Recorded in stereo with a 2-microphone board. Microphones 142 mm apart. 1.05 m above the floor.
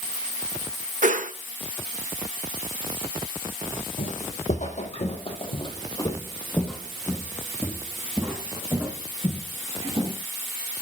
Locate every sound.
1.0 s a whoosh: 65° right (ahead or behind), 0.9 m
4.0 s footsteps: 60° left (ahead or behind), 2.5 m; by 10.1 s 25° right (ahead or behind), 4.5 m